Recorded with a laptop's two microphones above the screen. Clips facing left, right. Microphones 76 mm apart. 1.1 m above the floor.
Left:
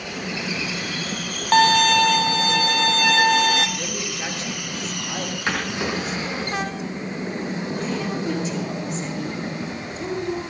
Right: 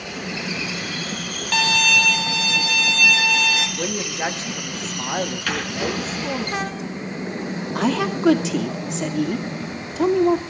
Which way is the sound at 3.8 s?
30° right (ahead or behind).